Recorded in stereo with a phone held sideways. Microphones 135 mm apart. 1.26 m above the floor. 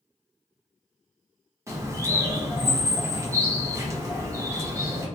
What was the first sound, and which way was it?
A bird, 20° right (ahead or behind).